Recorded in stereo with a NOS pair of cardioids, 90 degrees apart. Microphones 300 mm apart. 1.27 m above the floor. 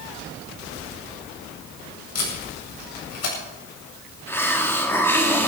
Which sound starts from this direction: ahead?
A hiss, at 4.3 s.